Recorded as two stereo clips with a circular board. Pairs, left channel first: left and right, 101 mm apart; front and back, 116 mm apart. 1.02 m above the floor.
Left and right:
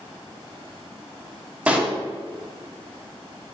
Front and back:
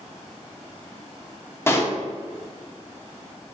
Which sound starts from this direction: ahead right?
A pop, at 1.7 s.